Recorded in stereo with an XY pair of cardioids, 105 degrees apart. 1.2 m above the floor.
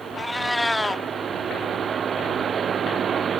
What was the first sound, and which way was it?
A cat meowing, 10° left.